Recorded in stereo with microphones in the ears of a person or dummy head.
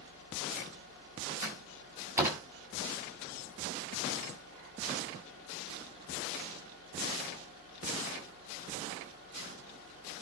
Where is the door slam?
20° right (ahead or behind), 8 m.